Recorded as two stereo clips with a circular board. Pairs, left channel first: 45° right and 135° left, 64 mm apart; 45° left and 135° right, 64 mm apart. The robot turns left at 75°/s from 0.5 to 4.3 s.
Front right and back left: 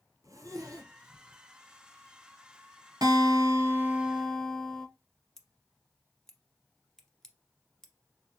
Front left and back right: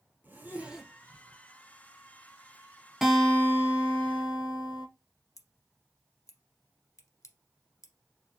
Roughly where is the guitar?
Behind left.